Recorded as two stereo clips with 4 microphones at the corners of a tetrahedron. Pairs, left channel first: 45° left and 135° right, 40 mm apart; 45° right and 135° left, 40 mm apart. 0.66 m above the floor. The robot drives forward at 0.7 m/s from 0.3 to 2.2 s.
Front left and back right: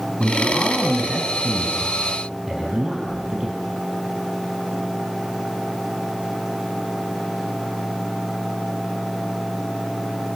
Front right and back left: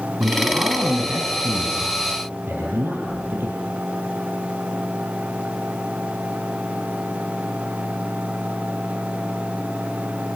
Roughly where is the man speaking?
Behind left.